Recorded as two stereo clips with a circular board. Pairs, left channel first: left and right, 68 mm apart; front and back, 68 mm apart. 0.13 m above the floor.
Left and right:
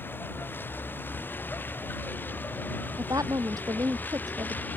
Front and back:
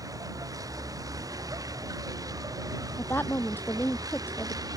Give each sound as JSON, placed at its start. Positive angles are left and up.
{"t": 0.0, "sound": "a vehicle", "azimuth_deg": 150}
{"t": 3.0, "sound": "a woman speaking", "azimuth_deg": -60}